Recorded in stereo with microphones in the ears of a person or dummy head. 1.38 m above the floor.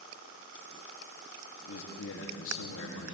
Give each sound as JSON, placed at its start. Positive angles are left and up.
{"t": 1.7, "sound": "a man speaking", "side_deg": 80, "distance_m": 1.9}